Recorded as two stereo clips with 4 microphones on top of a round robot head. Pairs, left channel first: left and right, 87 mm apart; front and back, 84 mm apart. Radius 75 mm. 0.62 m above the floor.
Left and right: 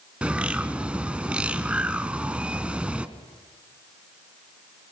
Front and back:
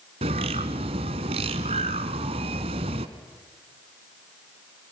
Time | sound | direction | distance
0.2 | a bird | 165° right | 1.1 m